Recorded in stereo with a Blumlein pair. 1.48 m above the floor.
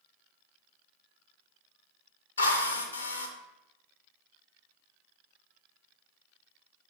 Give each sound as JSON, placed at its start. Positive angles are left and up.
{"t": 2.4, "sound": "a drill", "azimuth_deg": 70, "distance_m": 0.6}